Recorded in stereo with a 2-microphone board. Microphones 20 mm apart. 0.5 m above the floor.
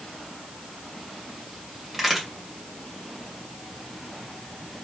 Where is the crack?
5° right (ahead or behind), 2 m.